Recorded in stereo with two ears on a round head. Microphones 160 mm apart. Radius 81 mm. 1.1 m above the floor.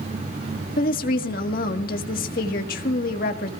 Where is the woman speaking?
50° left (ahead or behind), 1.6 m.